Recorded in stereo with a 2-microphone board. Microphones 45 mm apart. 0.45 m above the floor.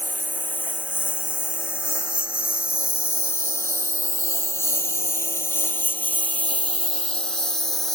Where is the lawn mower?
50° left (ahead or behind); by 8.0 s 10° left (ahead or behind).